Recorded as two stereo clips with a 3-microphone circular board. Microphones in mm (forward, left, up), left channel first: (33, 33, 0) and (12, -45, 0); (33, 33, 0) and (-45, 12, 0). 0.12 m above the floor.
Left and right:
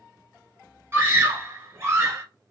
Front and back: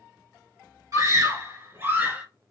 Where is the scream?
150° right, 1.9 m; by 2.2 s 110° right, 1.7 m.